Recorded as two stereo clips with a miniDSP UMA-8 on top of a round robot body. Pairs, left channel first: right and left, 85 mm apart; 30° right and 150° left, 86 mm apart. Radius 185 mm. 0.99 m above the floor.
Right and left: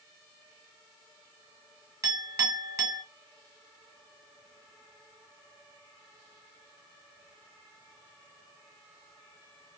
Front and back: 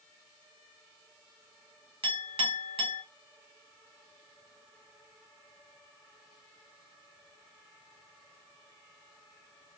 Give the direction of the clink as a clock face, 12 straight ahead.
7 o'clock.